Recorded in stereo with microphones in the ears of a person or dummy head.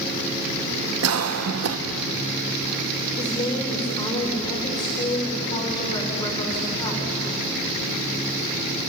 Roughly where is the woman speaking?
Left.